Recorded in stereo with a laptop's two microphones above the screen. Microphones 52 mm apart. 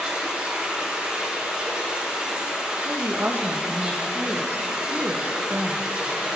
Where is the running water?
25° right (ahead or behind), 4.5 m.